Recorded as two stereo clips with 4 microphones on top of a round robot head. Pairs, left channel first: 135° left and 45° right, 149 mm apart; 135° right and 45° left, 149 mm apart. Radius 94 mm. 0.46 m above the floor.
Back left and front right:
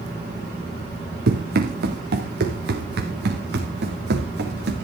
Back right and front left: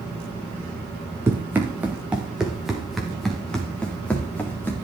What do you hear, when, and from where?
1.3 s running footsteps: 30° right, 3.5 m; by 4.7 s 55° right, 5 m